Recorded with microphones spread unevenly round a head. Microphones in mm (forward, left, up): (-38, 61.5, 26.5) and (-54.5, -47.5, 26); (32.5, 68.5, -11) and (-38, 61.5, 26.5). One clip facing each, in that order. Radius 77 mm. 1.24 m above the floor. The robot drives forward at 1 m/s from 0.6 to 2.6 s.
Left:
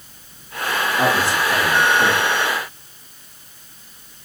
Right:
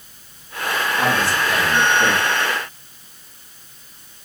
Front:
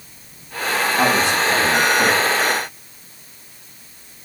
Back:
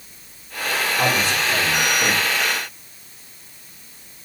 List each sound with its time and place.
1.0 s a man speaking: 5° left, 3 m